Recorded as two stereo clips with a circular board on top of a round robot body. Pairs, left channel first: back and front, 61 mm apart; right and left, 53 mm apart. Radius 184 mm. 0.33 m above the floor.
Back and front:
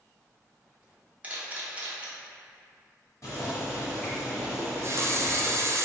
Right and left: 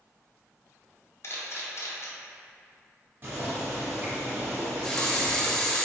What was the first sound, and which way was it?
A camera shutter, 65° right.